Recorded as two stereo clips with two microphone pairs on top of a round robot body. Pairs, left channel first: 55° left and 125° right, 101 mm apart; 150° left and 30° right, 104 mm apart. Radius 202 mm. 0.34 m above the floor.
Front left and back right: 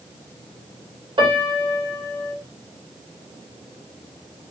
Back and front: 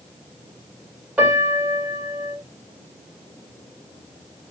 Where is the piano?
105° right, 2 m.